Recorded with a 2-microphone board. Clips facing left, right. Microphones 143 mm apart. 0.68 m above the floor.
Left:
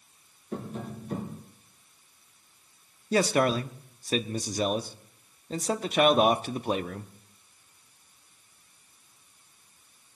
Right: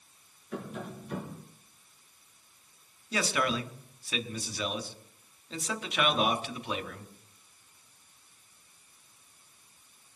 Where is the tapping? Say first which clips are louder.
Left 2 dB; 35° left (ahead or behind), 2 m.